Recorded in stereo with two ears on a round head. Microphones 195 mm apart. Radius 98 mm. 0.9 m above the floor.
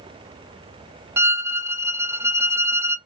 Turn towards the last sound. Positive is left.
turn(degrees=-10)  # may be behind; listen again after turning